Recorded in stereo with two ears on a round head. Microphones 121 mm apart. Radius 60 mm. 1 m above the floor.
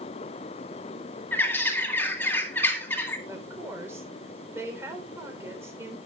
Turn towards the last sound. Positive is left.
turn(degrees=-20)  # may be behind; listen again after turning